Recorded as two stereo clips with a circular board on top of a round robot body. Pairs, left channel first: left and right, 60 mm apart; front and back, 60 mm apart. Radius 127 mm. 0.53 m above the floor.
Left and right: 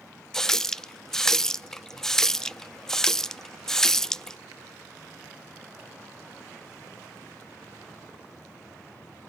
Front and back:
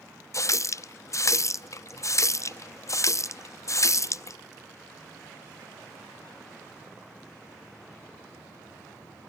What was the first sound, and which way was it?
A running tap, 10° left.